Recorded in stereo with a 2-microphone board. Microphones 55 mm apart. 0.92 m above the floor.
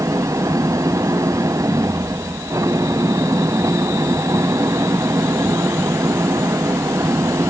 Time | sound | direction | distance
0.0 | an engine running | 80° right | ?